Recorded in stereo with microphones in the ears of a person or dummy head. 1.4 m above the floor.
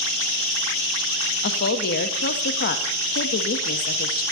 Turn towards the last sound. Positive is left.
turn(degrees=60)  # may be behind; listen again after turning